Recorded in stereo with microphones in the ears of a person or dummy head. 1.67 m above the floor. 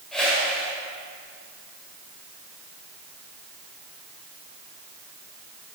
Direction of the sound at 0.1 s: 5° left (ahead or behind).